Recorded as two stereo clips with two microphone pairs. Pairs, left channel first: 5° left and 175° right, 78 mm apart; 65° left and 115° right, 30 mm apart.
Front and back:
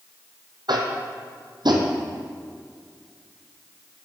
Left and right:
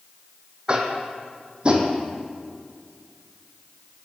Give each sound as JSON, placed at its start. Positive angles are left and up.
{"t": 0.7, "sound": "tapping", "azimuth_deg": -165, "distance_m": 1.2}